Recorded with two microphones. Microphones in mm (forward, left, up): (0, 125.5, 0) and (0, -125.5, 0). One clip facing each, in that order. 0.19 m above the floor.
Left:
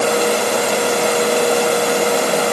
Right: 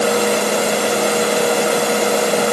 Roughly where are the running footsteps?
I don't hear running footsteps.